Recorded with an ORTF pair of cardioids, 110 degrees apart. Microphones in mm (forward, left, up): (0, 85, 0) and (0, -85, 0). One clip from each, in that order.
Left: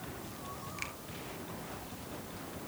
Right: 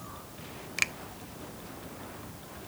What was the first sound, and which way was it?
A finger snap, 60° right.